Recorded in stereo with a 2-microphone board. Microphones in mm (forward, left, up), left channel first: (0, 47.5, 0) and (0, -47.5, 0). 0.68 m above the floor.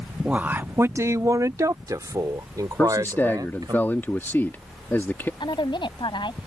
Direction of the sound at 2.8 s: 25° left (ahead or behind).